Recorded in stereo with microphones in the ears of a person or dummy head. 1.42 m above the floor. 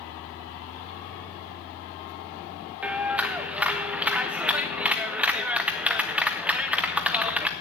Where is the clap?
10° right (ahead or behind), 0.5 m.